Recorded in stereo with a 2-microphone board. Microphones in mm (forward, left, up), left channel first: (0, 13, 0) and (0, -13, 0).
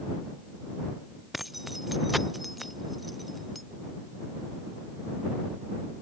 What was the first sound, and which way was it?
Keys jangling, 5° right (ahead or behind).